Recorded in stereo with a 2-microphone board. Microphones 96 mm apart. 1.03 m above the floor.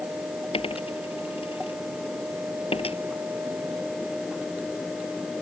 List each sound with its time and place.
0.5 s a dropped coin: 85° left